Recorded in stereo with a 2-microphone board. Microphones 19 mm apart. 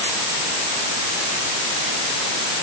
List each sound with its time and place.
Only background noise.